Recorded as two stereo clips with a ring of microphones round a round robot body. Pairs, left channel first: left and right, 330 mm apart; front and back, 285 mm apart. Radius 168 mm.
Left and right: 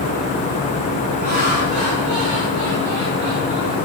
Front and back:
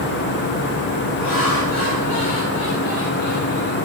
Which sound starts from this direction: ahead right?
Laughter, at 1.2 s.